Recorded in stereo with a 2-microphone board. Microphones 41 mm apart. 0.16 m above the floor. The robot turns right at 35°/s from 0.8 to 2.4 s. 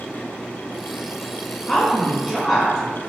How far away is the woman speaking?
About 1.3 m.